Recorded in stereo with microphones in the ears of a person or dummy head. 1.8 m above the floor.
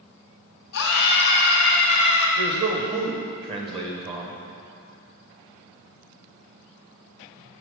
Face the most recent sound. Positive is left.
turn(degrees=-30)  # may be behind; listen again after turning